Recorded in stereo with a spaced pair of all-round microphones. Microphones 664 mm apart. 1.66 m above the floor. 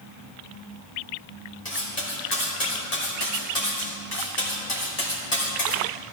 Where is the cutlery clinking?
65° left (ahead or behind), 3.5 m.